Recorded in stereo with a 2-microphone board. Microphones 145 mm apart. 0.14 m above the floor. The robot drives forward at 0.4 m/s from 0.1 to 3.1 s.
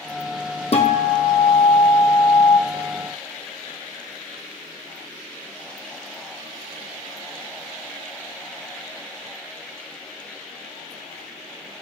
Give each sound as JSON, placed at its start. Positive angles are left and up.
{"t": 0.7, "sound": "a guitar", "side_deg": 45, "distance_m": 1.0}